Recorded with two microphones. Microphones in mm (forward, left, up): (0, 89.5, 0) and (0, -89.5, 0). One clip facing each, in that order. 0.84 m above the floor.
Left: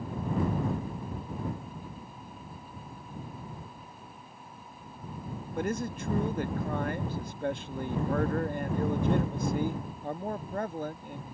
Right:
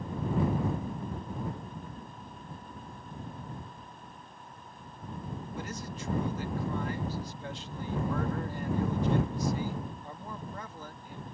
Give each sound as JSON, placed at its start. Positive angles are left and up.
{"t": 5.5, "sound": "a man speaking", "side_deg": 60}